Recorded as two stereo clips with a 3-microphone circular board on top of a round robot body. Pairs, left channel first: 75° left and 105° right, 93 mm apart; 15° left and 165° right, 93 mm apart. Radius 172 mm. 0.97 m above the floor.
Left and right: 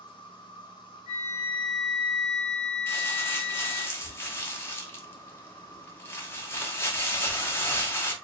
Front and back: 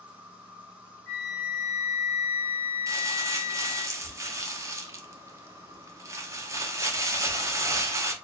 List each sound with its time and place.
0.0 s an insect: 120° left, 0.8 m
1.1 s a flute: 65° right, 0.7 m
2.9 s crumpling: 135° left, 1.1 m